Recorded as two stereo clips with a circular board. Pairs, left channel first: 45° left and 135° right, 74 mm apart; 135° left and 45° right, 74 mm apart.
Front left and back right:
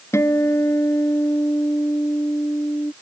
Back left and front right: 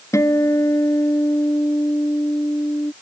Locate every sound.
0.1 s a guitar: 95° left